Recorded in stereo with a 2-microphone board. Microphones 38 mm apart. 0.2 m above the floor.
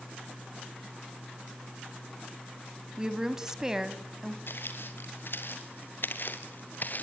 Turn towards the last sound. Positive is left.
turn(degrees=50)  # may be behind; listen again after turning